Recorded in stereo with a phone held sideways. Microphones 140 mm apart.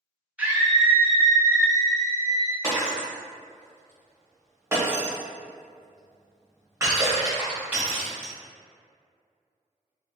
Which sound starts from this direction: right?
Breaking glass, at 2.6 s.